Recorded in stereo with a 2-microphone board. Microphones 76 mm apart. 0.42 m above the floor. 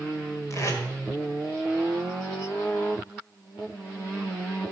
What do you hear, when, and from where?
0.5 s tape being pulled: 40° left (ahead or behind), 1.9 m